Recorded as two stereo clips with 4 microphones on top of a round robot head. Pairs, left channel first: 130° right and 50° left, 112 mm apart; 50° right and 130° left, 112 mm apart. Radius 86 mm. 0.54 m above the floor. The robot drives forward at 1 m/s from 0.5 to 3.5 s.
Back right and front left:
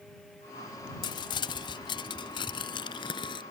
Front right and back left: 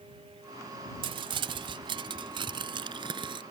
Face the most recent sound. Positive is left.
turn(degrees=180)